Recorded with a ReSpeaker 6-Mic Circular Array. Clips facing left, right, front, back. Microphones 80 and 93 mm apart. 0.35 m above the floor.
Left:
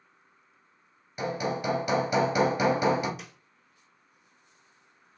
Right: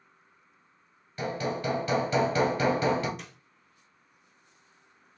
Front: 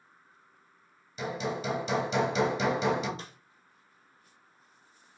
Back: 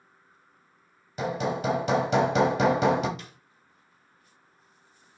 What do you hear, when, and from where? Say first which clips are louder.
1.2 s hammering: left 1 dB, back 5 dB; 160° left, 1.1 m
3.2 s a snare drum: even, front 1 dB; 5° left, 0.6 m